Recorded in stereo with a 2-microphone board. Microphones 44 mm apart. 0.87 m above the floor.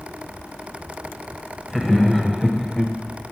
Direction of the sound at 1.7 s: 5° right (ahead or behind).